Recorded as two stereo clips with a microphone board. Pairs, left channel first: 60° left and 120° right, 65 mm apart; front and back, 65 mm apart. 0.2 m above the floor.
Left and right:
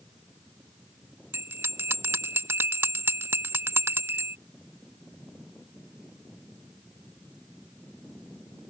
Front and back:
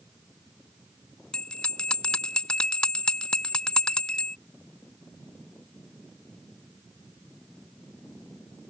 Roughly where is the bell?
Right.